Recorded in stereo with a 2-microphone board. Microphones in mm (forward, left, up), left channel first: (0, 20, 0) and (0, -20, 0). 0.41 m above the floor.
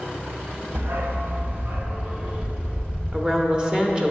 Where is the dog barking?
75° right (ahead or behind), 0.9 m; by 3.0 s 20° right (ahead or behind), 3 m.